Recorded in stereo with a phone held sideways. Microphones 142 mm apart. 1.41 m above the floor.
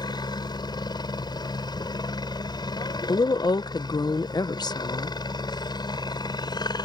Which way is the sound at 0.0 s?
30° left (ahead or behind).